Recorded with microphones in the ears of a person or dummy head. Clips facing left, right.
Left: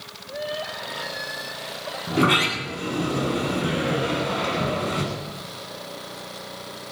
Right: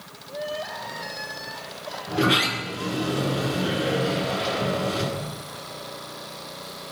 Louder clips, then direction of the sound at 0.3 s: Left 1 dB; 30° left (ahead or behind).